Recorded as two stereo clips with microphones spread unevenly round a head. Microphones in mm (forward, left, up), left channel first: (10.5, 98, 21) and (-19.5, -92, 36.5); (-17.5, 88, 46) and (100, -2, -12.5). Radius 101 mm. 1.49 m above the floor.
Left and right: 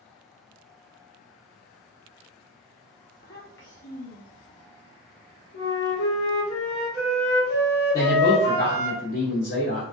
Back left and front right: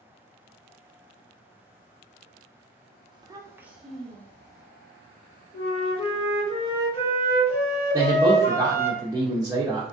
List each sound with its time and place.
3.1 s a child speaking: 30° left, 1.0 m; by 4.7 s 90° left, 1.1 m
5.5 s a flute: 115° left, 1.5 m
7.9 s a man speaking: 30° left, 0.8 m